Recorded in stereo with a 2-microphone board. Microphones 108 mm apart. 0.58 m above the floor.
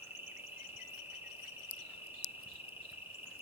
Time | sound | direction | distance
0.0 | an insect | 20° right (ahead or behind) | 0.7 m